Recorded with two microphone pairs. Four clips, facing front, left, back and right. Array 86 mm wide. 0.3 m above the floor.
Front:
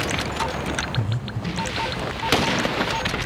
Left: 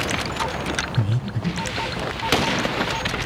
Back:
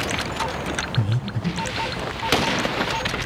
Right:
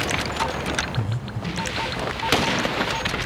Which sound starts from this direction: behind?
Breathing, at 1.0 s.